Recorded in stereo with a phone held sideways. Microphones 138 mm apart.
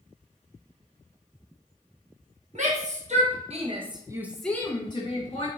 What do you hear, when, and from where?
2.5 s a shout: 55° right (ahead or behind), 1.4 m; by 5.5 s 45° left (ahead or behind), 1.0 m